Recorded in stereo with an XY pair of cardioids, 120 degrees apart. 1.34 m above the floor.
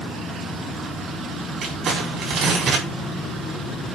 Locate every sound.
1.6 s crumpling: 55° right, 4.5 m